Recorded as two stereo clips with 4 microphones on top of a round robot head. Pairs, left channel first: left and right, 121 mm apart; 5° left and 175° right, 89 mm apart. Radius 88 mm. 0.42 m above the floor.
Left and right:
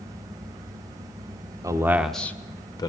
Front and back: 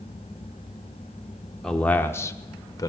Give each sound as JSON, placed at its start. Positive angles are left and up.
{"t": 1.6, "sound": "a man speaking", "azimuth_deg": -80, "distance_m": 0.9}